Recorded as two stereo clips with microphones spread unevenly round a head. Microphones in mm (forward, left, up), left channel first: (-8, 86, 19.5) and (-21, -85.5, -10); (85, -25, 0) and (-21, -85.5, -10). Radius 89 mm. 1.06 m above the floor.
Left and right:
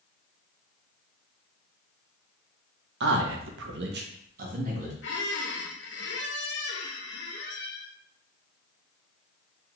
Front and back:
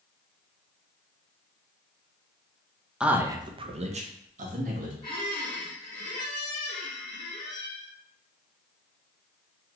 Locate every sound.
3.0 s a man speaking: 65° right, 0.6 m; by 4.9 s 145° right, 1.2 m
5.0 s a squeak: 95° left, 0.6 m